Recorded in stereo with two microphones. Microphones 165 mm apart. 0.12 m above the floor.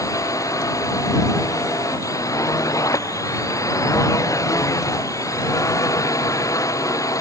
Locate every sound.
0.0 s a drone: 20° left (ahead or behind)